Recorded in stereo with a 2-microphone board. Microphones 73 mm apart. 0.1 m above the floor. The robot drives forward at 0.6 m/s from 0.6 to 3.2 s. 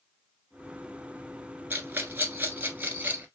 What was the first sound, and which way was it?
A rattle, 25° right (ahead or behind).